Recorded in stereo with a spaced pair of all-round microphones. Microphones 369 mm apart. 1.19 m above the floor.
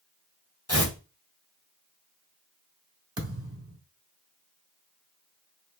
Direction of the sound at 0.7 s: 40° left (ahead or behind).